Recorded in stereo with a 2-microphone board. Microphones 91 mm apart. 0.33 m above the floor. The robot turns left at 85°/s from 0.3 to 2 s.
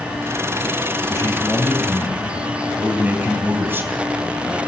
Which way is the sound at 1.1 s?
50° left.